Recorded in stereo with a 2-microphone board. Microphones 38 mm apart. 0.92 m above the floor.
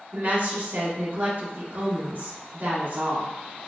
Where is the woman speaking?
65° right (ahead or behind), 1.4 m.